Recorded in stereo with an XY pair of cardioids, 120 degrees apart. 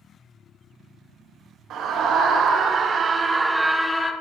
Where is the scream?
65° right, 1.6 m; by 4.1 s 25° left, 0.8 m.